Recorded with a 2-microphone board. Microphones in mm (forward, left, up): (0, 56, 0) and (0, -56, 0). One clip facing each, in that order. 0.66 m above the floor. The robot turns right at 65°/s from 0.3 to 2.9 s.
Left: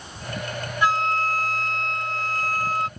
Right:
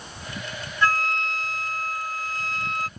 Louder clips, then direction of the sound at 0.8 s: Left 2 dB; 15° left.